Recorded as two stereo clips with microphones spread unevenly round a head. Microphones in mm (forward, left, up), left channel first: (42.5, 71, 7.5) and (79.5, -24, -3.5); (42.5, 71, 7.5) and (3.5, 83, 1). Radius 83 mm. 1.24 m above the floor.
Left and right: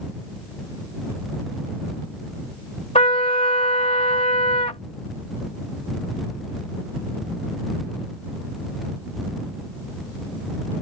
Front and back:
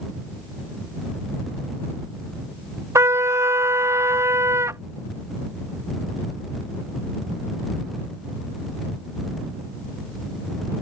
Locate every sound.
3.0 s a trumpet: 165° left